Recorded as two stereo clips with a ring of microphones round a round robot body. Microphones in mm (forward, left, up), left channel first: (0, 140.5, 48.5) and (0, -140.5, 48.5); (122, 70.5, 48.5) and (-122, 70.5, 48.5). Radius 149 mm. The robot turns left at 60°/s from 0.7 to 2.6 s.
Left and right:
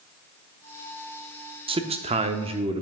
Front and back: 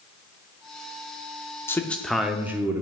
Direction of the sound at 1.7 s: 60° right.